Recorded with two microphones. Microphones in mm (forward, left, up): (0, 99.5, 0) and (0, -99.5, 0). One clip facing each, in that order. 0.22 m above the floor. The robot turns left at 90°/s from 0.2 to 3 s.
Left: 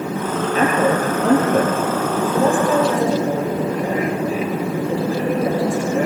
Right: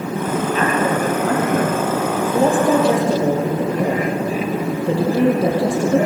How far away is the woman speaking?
About 6 m.